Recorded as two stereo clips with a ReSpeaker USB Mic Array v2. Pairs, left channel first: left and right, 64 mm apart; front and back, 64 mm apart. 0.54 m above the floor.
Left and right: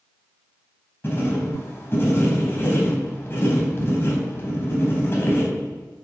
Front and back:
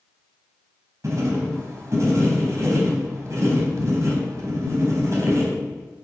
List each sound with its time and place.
1.0 s writing: 145° left, 3.5 m